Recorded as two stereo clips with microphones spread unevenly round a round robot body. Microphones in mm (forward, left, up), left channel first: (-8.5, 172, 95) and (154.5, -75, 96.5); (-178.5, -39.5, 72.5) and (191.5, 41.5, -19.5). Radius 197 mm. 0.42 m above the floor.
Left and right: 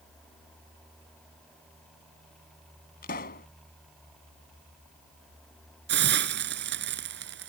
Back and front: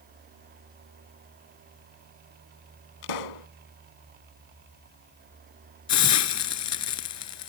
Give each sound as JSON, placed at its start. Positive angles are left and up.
{"t": 3.0, "sound": "a pop", "azimuth_deg": -170}
{"t": 5.9, "sound": "a hiss", "azimuth_deg": -115}